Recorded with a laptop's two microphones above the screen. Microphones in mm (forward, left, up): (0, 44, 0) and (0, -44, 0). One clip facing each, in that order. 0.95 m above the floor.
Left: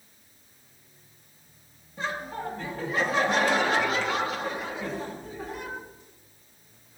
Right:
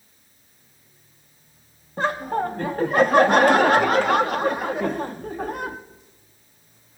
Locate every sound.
2.0 s laughter: 60° right (ahead or behind), 1.2 m